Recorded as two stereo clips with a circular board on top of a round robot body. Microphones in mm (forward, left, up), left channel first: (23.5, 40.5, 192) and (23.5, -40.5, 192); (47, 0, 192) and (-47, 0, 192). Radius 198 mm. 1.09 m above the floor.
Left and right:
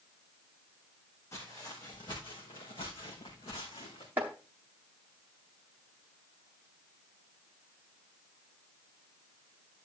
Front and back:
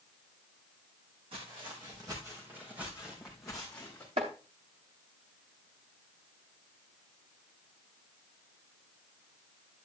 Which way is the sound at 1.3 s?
150° left.